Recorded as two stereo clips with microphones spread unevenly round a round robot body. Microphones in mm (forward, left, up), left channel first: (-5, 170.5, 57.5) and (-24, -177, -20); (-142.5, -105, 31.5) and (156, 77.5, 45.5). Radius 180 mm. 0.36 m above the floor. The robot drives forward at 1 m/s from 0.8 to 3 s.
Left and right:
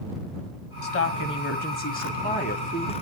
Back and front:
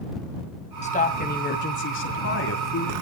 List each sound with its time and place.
0.8 s a woman speaking: 145° left, 2.5 m; by 2.9 s 160° left, 4 m